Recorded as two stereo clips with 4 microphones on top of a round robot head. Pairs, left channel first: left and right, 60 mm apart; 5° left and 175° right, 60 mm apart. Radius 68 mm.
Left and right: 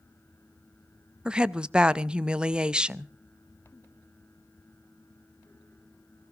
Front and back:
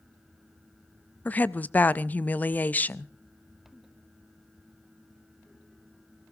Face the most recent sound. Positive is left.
turn(degrees=-30)